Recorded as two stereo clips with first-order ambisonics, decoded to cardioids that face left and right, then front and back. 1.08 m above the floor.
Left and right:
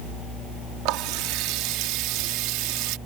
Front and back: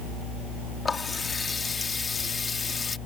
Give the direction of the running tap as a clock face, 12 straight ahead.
2 o'clock.